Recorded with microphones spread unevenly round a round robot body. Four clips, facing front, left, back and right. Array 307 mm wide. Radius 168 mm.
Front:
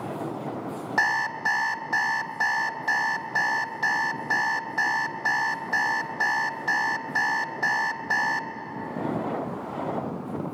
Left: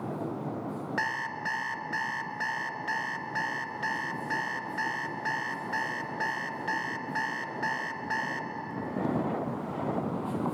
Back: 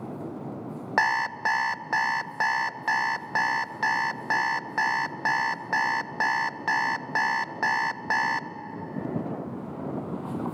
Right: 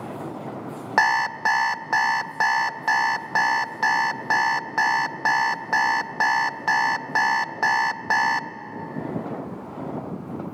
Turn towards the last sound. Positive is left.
turn(degrees=-80)